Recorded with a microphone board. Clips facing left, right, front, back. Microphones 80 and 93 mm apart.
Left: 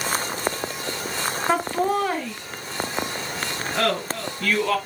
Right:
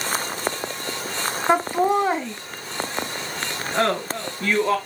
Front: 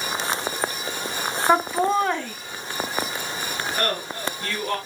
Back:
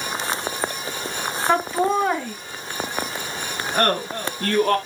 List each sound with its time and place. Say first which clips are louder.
1.5 s laughter: right 3 dB, even; 55° right, 1.0 m; by 4.8 s 150° right, 2 m